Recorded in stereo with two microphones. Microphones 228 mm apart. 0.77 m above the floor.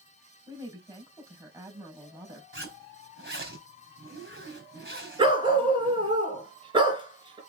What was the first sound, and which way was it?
A woman speaking, 15° right (ahead or behind).